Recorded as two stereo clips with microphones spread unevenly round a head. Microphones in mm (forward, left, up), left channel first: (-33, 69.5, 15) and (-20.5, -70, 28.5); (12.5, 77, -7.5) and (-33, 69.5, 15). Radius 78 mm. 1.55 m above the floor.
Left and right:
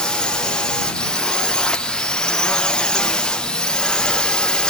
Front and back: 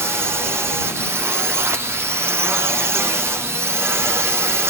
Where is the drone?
165° left.